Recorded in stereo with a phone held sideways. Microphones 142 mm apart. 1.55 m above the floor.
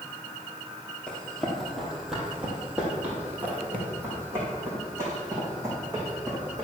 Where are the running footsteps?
5° left (ahead or behind), 2.5 m; by 6.7 s 25° right (ahead or behind), 5 m.